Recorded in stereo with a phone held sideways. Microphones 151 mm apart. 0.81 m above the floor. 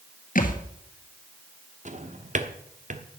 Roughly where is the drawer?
Right.